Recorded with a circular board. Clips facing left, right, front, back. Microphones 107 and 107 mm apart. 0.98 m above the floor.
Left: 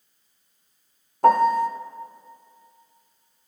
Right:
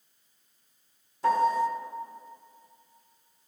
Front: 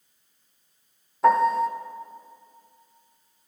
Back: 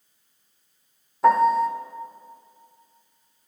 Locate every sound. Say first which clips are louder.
1.2 s a piano: left 7 dB, back 2 dB; 90° left, 0.5 m